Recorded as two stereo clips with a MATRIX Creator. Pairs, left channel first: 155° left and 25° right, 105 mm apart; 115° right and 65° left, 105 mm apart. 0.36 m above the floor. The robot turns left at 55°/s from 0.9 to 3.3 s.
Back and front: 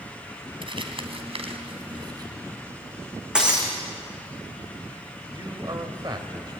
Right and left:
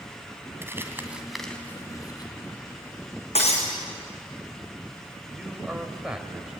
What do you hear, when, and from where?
0.6 s crumpling: straight ahead, 2.5 m; by 2.3 s 75° right, 2.5 m
3.4 s breaking glass: 105° right, 4.5 m
5.3 s a man speaking: 10° right, 1.9 m